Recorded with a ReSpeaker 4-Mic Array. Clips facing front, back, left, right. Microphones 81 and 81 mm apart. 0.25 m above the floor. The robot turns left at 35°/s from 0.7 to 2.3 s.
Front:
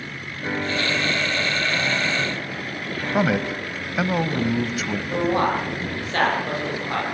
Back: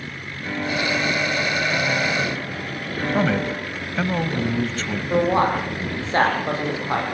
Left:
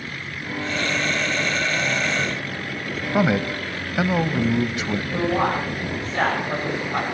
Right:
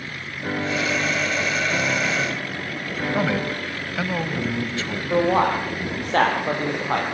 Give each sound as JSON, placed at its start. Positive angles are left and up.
{"t": 0.4, "sound": "a piano", "azimuth_deg": -60, "distance_m": 3.5}
{"t": 3.1, "sound": "a man speaking", "azimuth_deg": 60, "distance_m": 0.9}
{"t": 5.1, "sound": "a man speaking", "azimuth_deg": -115, "distance_m": 9.0}